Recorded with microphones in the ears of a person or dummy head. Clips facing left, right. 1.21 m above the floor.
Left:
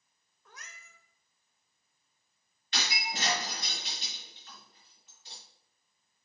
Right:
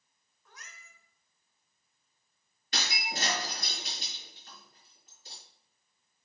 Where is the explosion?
I don't hear an explosion.